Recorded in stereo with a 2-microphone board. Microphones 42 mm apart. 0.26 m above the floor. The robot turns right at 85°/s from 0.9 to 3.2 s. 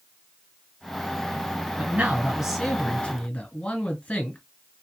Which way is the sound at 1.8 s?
75° right.